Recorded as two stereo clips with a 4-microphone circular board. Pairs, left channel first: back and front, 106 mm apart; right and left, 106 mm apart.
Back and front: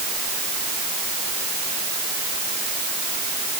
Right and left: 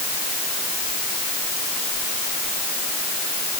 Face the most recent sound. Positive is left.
No sound to turn to.